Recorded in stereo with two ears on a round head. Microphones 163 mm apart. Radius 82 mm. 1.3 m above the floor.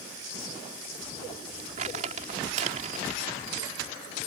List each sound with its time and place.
1.8 s crumpling: 40° right (ahead or behind)